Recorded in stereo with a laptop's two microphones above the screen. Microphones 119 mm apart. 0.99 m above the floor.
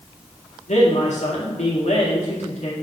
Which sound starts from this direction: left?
A man speaking, at 0.7 s.